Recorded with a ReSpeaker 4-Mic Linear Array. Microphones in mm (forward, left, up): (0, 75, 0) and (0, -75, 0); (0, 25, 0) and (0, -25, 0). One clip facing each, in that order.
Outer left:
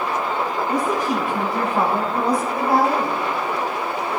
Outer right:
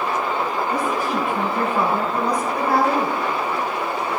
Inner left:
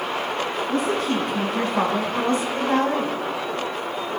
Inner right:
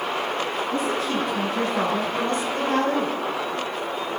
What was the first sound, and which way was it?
A woman speaking, 45° left (ahead or behind).